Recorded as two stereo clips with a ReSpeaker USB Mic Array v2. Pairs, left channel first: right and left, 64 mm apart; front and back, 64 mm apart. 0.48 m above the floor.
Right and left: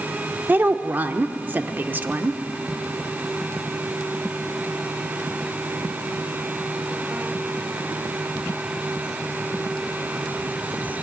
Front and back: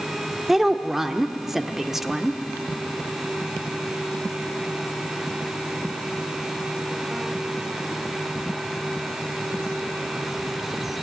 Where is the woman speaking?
100° left, 1.1 m.